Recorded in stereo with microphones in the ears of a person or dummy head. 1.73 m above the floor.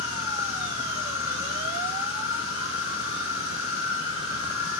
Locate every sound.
0.0 s an insect: 70° left (ahead or behind), 6 m